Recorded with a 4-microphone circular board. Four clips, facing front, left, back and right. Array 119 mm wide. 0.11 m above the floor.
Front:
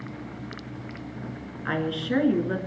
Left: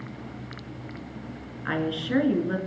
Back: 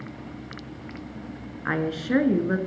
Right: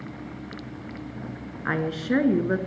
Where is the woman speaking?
130° right, 1.1 m.